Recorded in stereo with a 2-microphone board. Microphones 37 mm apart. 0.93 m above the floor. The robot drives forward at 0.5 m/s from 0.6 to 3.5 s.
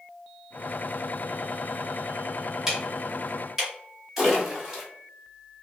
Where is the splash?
10° right (ahead or behind), 1.9 m.